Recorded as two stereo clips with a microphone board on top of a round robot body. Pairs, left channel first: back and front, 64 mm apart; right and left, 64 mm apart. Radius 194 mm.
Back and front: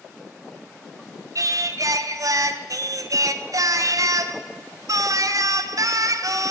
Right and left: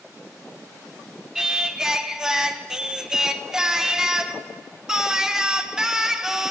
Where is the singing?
10° left, 0.8 m.